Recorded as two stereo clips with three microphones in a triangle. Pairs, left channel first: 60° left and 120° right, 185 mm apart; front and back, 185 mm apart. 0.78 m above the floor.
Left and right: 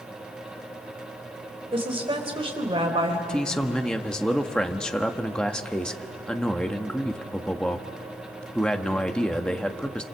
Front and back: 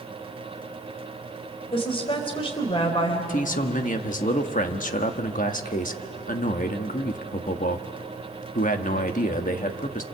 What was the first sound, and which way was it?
A woman speaking, 60° right.